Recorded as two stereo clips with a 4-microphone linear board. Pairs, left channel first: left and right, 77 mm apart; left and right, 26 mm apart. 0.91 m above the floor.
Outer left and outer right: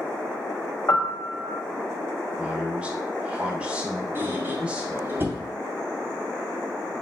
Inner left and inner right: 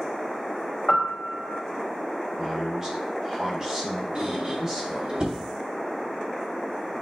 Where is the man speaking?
15° right (ahead or behind), 2.5 m.